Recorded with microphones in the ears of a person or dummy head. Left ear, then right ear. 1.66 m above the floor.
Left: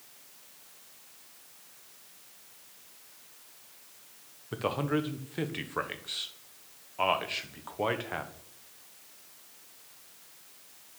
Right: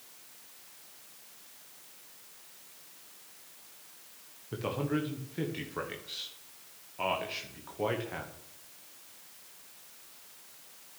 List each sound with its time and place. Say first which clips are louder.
4.5 s a man speaking: left 3 dB; 35° left (ahead or behind), 1.3 m